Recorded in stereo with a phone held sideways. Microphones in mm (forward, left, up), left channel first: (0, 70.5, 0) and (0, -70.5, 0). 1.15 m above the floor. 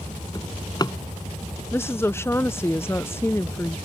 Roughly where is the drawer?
Left.